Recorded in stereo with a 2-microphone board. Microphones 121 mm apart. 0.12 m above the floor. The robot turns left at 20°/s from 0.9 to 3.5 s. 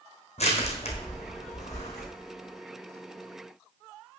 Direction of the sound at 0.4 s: 60° left (ahead or behind).